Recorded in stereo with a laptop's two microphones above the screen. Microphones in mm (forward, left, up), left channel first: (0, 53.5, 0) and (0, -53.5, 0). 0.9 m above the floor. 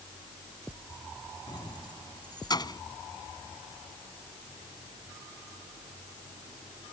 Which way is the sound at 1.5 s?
40° left (ahead or behind).